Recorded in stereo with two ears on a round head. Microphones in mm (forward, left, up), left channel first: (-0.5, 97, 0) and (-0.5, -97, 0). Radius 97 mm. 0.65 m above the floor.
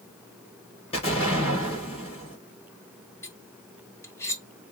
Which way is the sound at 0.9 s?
30° left (ahead or behind).